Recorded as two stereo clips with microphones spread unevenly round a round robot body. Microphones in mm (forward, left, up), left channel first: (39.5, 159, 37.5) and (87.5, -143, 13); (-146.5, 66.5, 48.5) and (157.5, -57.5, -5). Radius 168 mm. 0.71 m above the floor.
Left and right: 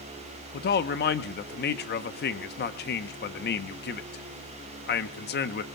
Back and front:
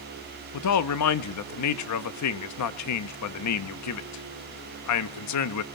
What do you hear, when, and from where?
0.5 s a man speaking: 145° left, 0.8 m